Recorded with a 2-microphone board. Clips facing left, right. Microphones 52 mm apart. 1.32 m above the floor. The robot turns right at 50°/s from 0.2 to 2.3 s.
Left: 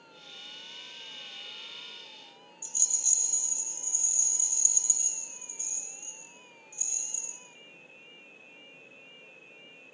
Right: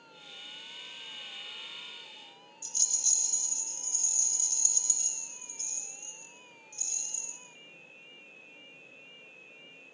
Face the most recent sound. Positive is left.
turn(degrees=15)  # may be behind; listen again after turning